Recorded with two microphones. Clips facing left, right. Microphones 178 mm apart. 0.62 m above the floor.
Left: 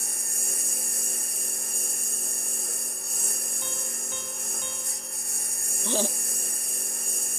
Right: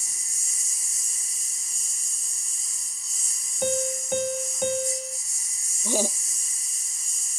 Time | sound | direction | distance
0.0 | a lawn mower | 60° left (ahead or behind) | ?
3.6 | a piano | 65° right (ahead or behind) | ?
5.8 | laughter | 10° right (ahead or behind) | ?